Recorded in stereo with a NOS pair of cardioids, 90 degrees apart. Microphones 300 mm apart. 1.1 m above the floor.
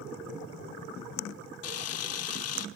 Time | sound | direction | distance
1.6 | a camera shutter | 55° left | 1.1 m